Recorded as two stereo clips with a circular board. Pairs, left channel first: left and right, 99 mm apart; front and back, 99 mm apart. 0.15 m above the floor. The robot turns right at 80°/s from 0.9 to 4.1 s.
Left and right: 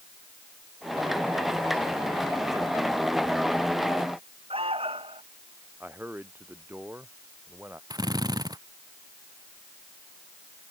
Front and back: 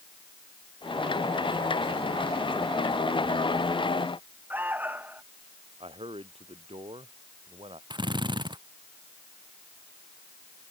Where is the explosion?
No explosion in this recording.